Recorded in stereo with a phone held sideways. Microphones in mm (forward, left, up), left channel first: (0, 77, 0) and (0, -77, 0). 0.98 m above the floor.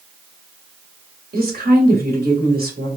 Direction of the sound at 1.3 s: 80° right.